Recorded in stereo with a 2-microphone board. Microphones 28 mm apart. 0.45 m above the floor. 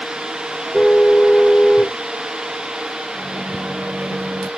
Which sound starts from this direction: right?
A microwave, at 3.1 s.